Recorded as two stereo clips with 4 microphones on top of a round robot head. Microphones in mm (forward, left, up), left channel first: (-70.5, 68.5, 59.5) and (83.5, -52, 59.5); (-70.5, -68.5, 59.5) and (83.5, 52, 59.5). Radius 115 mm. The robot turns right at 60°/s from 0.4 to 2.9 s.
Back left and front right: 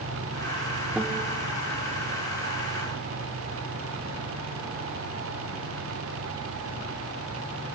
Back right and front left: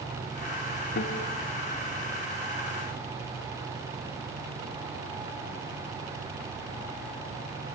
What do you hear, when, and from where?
1.0 s a guitar: 125° right, 1.2 m; by 1.2 s 105° right, 1.2 m